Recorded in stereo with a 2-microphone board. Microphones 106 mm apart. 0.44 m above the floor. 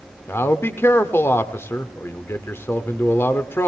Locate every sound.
0.3 s a man speaking: 25° left (ahead or behind), 0.8 m